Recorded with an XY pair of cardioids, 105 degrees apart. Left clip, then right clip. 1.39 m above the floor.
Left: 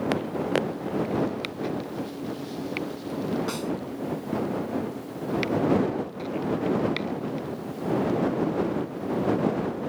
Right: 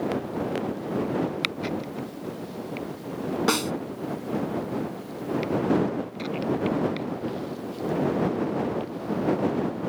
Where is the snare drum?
65° right.